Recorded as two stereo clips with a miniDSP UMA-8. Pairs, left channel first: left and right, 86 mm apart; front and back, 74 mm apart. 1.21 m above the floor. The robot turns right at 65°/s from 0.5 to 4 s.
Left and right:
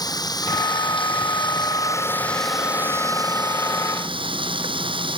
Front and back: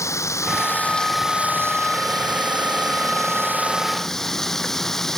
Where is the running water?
50° left; by 5.2 s 85° right.